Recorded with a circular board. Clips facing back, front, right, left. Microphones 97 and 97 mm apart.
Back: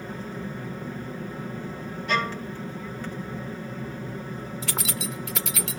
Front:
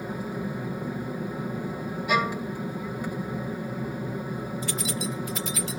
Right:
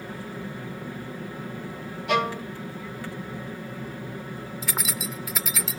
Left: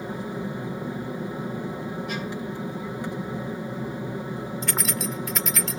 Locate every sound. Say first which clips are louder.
0.0 s an aircraft: front 3 dB, left 5 dB; 60° left
2.1 s a violin: front 2 dB, right 6 dB; 80° right
4.6 s keys jangling: even, left 2 dB; 175° right